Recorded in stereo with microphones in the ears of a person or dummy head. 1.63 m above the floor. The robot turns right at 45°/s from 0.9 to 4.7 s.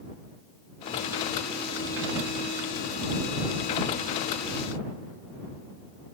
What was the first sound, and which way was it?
Only background noise.